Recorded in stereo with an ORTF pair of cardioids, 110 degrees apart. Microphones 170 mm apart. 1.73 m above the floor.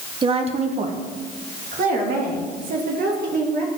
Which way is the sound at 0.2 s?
30° right.